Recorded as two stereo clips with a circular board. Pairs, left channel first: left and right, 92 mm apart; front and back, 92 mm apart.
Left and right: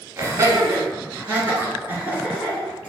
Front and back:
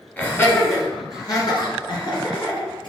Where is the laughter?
55° right, 1.4 m; by 2.9 s 20° right, 3 m.